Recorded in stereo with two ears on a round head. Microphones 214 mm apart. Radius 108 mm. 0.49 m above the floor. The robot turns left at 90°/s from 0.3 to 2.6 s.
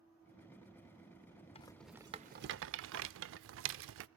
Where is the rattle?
25° left (ahead or behind), 0.5 m; by 4.1 s 55° right (ahead or behind), 0.5 m.